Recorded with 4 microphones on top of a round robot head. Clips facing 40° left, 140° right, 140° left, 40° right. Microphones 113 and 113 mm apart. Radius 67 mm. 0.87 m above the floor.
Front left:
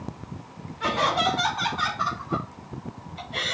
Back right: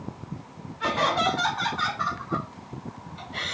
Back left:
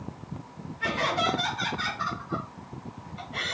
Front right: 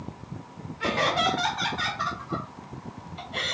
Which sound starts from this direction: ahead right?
Laughter, at 0.8 s.